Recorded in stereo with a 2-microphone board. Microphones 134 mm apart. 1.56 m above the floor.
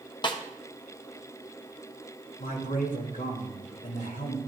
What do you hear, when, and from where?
0.2 s a snare drum: 35° left (ahead or behind), 0.8 m
2.4 s a man speaking: 75° left (ahead or behind), 2.5 m